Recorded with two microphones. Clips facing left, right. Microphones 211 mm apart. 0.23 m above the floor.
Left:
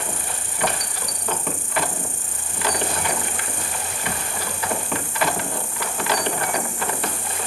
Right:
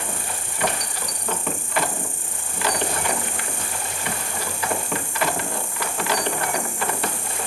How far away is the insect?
About 3.5 m.